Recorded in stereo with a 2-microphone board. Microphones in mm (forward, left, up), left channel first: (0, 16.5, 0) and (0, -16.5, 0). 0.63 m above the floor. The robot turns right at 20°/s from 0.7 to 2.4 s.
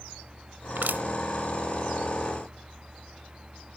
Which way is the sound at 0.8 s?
75° right (ahead or behind).